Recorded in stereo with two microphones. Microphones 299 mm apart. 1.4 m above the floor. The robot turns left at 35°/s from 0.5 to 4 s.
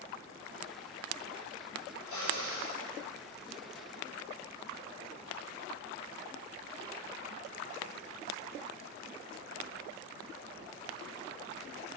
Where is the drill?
85° right, 7.5 m; by 2.8 s 60° right (ahead or behind), 7.5 m.